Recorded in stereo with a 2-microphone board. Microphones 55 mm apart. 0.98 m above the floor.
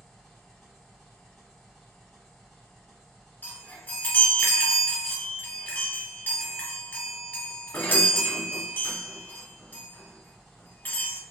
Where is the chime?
30° left (ahead or behind), 1.0 m.